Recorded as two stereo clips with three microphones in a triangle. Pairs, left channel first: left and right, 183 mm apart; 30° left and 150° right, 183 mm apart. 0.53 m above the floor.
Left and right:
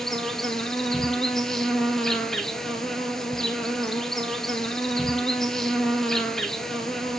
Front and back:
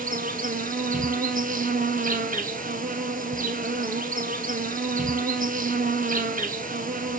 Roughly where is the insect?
Behind.